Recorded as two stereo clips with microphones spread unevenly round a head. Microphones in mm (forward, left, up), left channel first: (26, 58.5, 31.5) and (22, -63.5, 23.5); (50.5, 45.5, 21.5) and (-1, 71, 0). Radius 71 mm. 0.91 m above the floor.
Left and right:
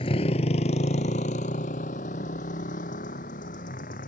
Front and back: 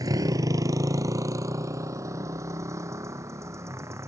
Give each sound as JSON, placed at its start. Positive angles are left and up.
{"t": 0.0, "sound": "a motorcycle", "azimuth_deg": 140}